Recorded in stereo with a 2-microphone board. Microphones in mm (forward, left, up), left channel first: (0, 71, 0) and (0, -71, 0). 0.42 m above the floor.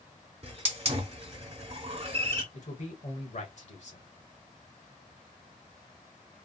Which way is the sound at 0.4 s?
45° right (ahead or behind).